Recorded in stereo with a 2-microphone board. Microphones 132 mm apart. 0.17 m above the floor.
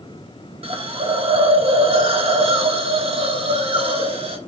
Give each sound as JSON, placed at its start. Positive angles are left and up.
{"t": 0.6, "sound": "a hiss", "side_deg": -45, "distance_m": 0.5}